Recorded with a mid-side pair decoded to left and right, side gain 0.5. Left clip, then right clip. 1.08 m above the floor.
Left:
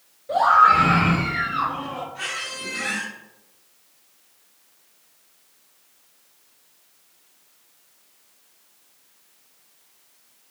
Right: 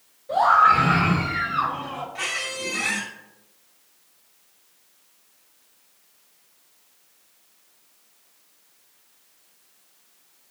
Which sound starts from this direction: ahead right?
A squeak, at 2.1 s.